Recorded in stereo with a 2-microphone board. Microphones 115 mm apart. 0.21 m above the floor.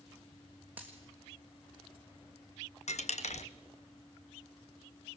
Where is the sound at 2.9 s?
80° left, 0.7 m.